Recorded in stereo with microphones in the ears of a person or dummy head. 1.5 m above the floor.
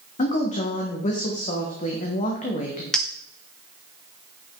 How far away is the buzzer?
I don't hear a buzzer.